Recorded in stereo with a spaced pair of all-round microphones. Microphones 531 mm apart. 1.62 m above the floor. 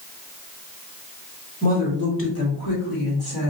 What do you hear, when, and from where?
1.6 s a woman speaking: 15° left (ahead or behind), 2 m; by 3.5 s 50° left (ahead or behind), 1.9 m